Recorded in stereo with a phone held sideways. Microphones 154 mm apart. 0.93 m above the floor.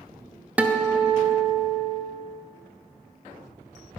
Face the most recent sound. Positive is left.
turn(degrees=-10)  # may be behind; listen again after turning